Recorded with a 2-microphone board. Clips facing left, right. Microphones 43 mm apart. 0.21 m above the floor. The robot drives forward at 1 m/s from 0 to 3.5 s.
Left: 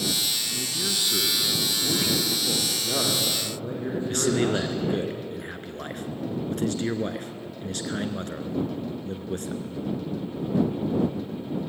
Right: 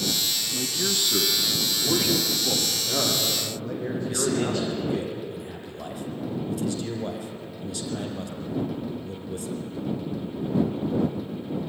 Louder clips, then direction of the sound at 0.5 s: Right 2 dB; 15° right (ahead or behind).